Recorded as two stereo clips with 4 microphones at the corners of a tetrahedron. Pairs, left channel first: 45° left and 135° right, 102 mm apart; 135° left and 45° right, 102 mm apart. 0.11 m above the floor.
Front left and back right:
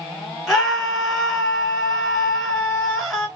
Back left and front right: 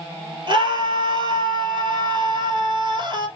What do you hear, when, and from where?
0.5 s a scream: 45° right, 2 m